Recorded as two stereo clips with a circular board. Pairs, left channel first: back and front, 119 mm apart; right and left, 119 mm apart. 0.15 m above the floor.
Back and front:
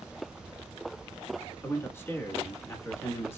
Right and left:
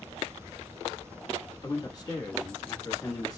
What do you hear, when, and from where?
1.6 s a man speaking: 120° right, 1.3 m